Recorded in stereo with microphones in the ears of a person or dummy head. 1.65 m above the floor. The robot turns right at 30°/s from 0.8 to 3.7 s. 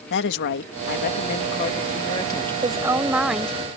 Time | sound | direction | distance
0.1 | a woman speaking | 120° left | ?
2.6 | a woman speaking | 25° right (ahead or behind) | ?